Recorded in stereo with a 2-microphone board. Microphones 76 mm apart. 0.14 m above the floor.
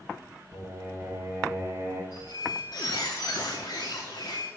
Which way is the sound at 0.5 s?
35° right (ahead or behind).